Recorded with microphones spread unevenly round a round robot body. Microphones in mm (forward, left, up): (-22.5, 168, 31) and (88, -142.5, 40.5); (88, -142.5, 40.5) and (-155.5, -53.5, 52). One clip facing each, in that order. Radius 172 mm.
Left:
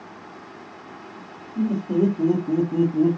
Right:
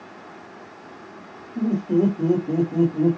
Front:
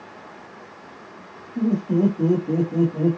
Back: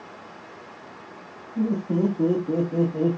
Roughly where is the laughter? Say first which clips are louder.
Right 1 dB, front 3 dB; ahead left.